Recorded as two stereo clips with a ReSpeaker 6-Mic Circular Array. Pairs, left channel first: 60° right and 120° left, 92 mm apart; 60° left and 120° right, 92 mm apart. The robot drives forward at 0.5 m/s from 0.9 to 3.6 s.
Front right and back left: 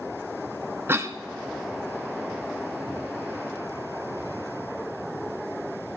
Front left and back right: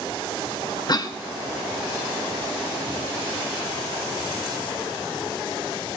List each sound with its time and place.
0.9 s a cough: 65° left, 0.7 m; by 1.2 s 80° left, 0.6 m